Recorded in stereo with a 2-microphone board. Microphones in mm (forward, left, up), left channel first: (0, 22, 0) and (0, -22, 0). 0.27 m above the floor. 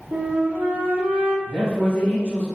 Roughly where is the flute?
Right.